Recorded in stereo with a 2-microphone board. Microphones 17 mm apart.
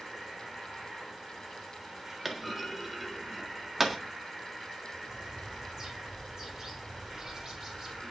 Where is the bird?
40° right (ahead or behind), 6.5 m.